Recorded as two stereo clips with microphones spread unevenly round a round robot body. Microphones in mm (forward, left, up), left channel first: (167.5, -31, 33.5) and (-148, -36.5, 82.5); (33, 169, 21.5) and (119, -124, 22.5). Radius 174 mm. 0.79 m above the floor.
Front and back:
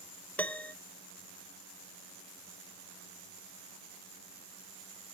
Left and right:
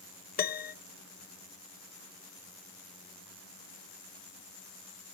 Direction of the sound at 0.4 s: 70° left.